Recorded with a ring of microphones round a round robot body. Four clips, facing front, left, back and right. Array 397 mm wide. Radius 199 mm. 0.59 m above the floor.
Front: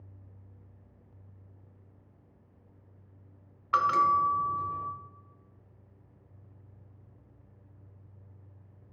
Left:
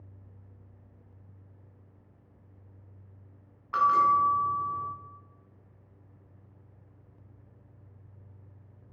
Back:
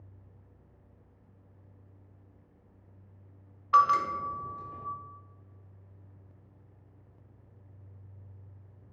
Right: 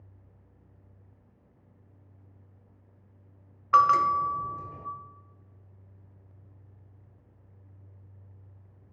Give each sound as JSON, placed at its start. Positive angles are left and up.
{"t": 3.7, "sound": "a bell", "azimuth_deg": -80, "distance_m": 0.9}